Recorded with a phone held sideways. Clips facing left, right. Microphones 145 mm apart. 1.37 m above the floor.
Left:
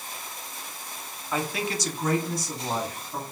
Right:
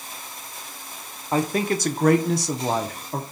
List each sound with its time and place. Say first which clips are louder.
1.3 s a man speaking: right 7 dB; 35° right (ahead or behind), 0.8 m; by 3.2 s 60° right (ahead or behind), 0.9 m